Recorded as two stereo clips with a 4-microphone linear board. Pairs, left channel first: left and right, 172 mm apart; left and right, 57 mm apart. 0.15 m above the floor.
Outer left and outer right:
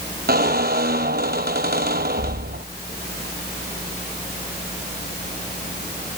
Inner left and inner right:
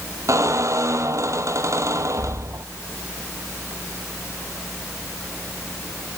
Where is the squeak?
60° right (ahead or behind), 0.8 m.